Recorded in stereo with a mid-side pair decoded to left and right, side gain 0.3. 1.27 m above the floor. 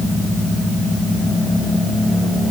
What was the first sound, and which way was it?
Only background noise.